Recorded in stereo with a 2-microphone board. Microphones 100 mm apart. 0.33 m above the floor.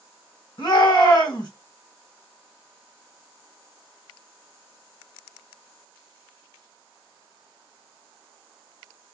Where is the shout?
55° left (ahead or behind), 1.4 m.